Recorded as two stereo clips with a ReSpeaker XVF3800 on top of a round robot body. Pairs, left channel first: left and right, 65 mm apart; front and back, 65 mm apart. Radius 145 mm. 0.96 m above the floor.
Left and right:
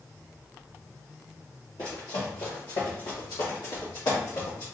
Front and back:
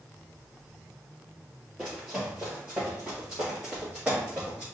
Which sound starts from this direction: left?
Running footsteps, at 1.8 s.